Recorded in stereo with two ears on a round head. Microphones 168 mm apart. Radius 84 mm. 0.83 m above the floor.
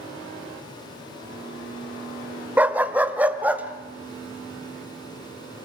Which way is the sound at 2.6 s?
10° right (ahead or behind).